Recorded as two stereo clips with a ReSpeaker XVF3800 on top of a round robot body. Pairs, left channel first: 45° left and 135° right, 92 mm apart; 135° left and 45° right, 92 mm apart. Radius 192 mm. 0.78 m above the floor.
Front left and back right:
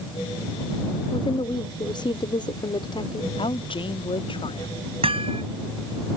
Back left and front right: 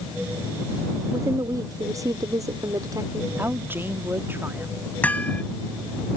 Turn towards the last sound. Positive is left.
turn(degrees=-150)